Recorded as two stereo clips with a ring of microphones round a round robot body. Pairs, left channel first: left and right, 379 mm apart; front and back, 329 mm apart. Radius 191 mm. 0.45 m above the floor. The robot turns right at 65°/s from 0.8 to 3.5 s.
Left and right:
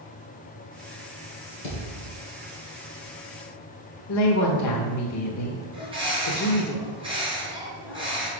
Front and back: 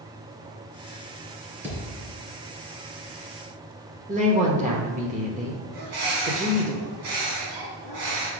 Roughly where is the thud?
Left.